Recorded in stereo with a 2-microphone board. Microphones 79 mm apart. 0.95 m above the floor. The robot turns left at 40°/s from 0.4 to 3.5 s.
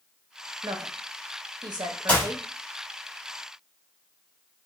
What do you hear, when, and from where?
0.6 s a woman speaking: 60° right (ahead or behind), 0.6 m; by 2.5 s 35° right (ahead or behind), 0.6 m
2.1 s a clap: 25° left (ahead or behind), 1.5 m; by 2.3 s 30° left (ahead or behind), 1.5 m